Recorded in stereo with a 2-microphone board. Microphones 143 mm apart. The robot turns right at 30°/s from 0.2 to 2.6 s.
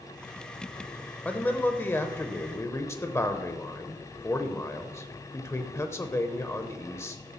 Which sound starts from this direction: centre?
A man speaking, at 1.2 s.